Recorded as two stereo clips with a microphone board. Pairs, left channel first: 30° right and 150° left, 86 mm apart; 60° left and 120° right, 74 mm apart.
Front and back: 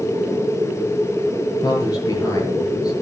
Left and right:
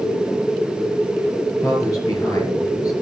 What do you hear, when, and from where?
1.6 s a man speaking: 20° left, 5.5 m